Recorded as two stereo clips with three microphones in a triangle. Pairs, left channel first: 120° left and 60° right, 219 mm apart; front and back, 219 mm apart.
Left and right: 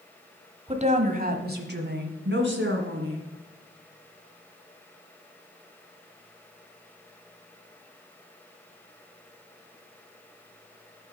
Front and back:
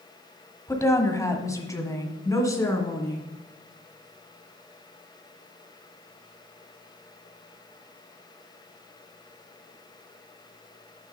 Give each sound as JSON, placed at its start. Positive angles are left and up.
{"t": 0.7, "sound": "a woman speaking", "azimuth_deg": -60, "distance_m": 1.0}